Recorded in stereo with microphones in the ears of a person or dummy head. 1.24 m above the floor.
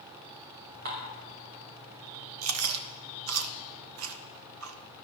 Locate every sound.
0.8 s dishes clattering: 45° right (ahead or behind), 2 m
2.4 s chewing: 75° right (ahead or behind), 0.8 m